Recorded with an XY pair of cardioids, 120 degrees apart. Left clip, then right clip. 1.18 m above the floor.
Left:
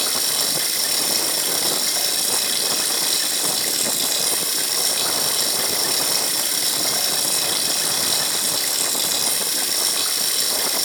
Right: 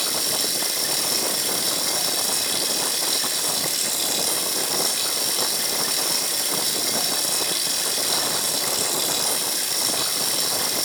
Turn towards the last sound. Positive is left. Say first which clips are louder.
# left 2 dB
turn(degrees=15)